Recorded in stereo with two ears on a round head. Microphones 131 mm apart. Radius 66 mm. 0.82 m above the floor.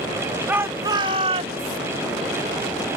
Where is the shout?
10° right (ahead or behind); by 1.8 s 50° right (ahead or behind).